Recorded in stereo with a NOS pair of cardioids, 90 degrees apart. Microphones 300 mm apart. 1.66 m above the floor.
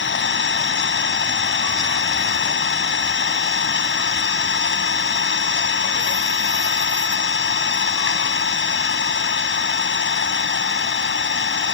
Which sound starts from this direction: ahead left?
An engine running, at 0.0 s.